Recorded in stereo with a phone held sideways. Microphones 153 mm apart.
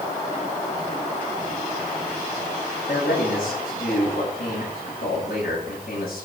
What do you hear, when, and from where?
2.9 s a man speaking: 70° left (ahead or behind), 10 m